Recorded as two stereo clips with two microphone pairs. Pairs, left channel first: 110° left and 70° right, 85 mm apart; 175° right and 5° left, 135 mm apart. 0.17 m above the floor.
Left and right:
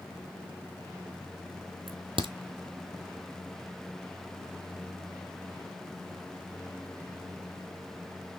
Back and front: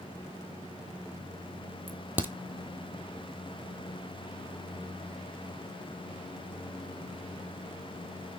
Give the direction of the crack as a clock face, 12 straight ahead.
2 o'clock.